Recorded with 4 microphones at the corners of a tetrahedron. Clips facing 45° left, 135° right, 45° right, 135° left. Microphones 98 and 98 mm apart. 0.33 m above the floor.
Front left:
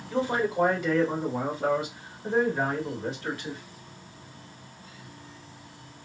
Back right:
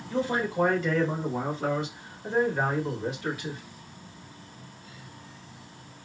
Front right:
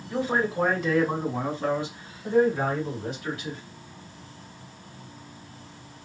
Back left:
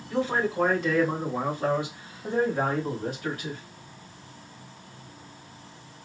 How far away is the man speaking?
About 1.5 m.